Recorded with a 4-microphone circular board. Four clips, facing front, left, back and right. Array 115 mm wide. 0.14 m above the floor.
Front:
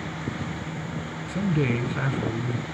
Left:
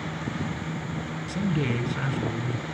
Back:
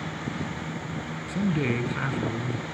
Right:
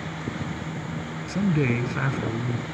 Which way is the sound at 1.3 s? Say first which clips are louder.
Right 4 dB, front 1 dB; 95° right.